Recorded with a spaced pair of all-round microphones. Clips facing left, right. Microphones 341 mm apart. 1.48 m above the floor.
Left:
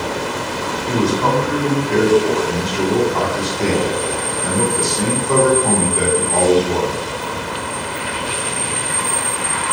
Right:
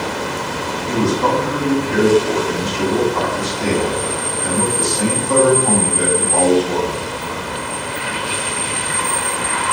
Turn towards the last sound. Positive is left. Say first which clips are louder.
# even
turn(degrees=75)  # may be behind; listen again after turning